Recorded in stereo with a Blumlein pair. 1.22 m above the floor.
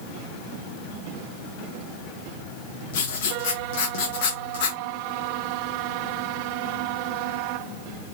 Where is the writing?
50° left, 1.1 m.